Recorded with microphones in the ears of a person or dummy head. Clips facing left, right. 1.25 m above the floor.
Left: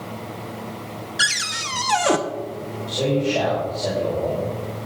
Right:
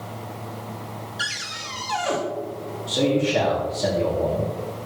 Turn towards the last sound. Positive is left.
turn(degrees=-70)  # may be behind; listen again after turning